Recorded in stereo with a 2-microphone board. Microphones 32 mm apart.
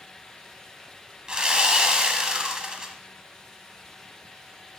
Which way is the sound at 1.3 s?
25° right (ahead or behind).